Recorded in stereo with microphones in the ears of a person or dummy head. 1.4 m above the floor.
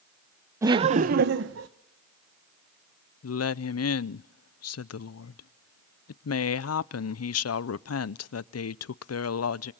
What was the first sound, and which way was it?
Laughter, 20° right (ahead or behind).